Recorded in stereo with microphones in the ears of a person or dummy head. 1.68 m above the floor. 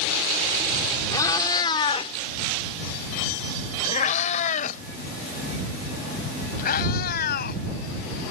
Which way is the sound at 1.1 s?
20° left (ahead or behind).